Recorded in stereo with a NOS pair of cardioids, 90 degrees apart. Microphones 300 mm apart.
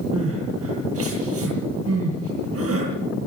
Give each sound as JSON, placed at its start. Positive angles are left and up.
{"t": 0.1, "sound": "crying", "azimuth_deg": -50, "distance_m": 9.0}